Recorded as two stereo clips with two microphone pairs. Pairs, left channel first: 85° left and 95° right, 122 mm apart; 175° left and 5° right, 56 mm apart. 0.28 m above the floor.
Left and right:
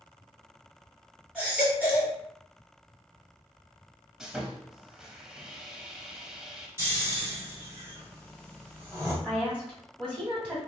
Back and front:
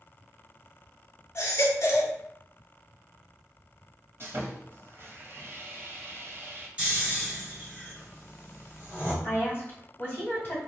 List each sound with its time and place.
1.4 s a baby crying: 175° right, 1.0 m
4.2 s sawing: 15° right, 0.6 m
6.8 s snoring: 55° right, 1.4 m
9.2 s a woman speaking: 170° right, 1.6 m